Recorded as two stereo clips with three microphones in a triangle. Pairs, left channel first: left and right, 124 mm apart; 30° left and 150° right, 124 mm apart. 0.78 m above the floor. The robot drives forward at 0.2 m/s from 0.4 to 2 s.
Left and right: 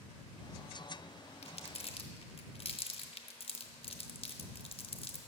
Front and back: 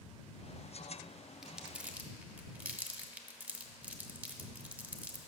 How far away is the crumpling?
About 0.5 m.